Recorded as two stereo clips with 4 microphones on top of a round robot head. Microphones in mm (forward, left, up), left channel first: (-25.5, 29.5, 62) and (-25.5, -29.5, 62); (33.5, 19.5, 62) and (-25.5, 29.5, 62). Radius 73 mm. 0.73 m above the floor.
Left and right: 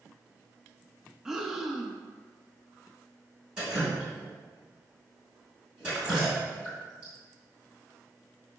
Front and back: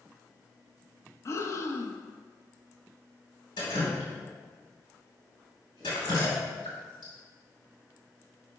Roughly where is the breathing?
Ahead.